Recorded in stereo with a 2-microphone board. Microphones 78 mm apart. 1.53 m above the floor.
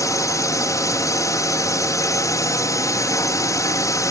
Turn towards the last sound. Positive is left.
turn(degrees=50)  # may be behind; listen again after turning